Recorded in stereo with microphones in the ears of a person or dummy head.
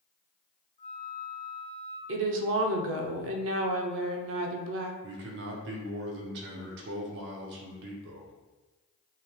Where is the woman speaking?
70° right (ahead or behind), 0.7 m.